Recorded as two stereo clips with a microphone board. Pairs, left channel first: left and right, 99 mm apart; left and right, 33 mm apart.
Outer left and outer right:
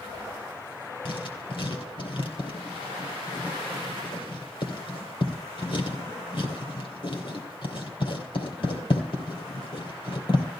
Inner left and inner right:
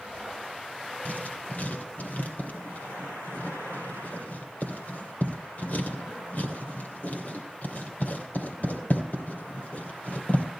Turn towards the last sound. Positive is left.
turn(degrees=60)  # may be behind; listen again after turning